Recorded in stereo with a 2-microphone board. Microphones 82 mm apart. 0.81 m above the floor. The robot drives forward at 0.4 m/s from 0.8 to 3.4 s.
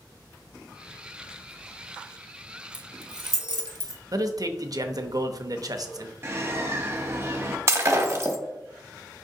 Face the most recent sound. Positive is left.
turn(degrees=-35)  # may be behind; listen again after turning